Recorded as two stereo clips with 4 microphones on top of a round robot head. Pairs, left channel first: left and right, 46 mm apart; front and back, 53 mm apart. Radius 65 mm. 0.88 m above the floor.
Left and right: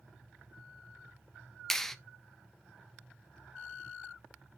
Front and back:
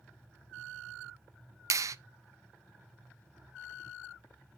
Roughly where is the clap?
Behind.